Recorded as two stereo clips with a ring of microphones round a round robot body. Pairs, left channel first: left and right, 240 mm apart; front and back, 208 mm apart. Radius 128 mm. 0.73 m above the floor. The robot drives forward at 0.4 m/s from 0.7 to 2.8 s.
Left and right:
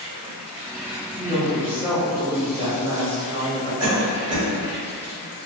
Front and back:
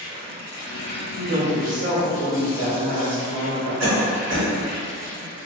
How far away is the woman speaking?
About 1.0 m.